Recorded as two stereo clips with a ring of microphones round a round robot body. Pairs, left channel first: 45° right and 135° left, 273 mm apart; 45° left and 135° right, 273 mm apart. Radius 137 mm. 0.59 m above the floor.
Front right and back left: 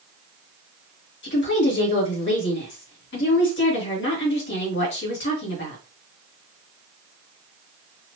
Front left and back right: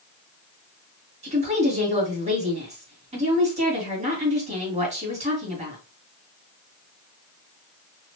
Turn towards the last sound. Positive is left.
turn(degrees=-75)